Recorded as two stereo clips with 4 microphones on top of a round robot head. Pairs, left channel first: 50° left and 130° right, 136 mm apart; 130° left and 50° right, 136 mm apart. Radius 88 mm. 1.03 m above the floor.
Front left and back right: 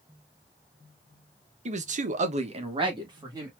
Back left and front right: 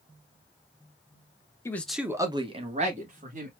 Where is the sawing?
No sawing in this recording.